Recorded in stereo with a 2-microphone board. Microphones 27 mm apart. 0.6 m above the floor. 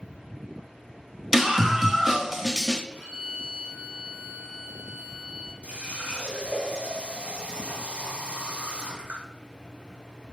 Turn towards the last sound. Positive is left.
turn(degrees=-50)  # may be behind; listen again after turning